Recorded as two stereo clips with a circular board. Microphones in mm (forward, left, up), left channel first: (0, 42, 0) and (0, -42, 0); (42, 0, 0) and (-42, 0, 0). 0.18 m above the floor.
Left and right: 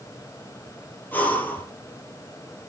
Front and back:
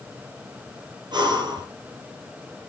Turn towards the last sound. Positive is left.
turn(degrees=155)